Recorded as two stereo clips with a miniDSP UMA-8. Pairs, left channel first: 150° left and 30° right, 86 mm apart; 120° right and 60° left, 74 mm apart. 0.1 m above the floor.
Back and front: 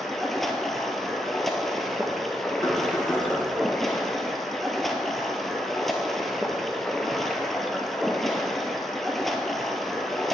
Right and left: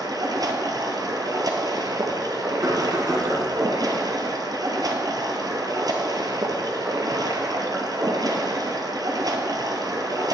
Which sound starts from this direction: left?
Knocking, at 2.6 s.